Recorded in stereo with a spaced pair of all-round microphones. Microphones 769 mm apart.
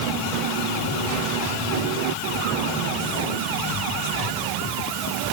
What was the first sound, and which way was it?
Only background noise.